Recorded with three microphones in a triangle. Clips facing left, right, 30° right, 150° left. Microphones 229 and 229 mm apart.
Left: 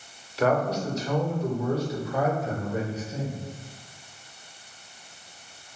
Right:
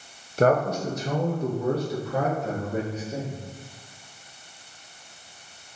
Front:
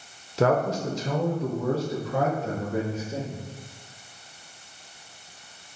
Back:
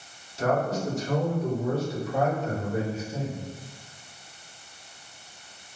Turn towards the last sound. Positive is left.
turn(degrees=-50)